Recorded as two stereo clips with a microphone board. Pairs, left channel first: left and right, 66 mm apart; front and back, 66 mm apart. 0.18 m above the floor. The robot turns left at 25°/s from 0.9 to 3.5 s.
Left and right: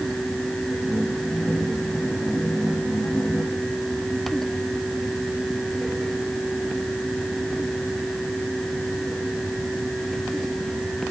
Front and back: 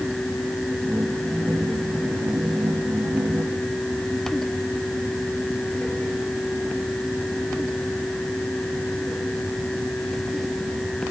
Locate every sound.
Only background noise.